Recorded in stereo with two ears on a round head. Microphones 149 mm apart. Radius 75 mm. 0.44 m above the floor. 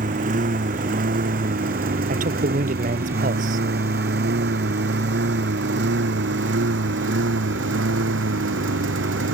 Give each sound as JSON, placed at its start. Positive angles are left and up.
{"t": 0.0, "sound": "a lawn mower", "side_deg": -50}
{"t": 2.1, "sound": "a man speaking", "side_deg": -50}